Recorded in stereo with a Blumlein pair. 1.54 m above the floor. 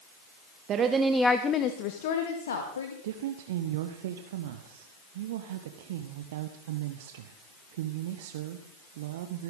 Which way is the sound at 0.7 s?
30° right.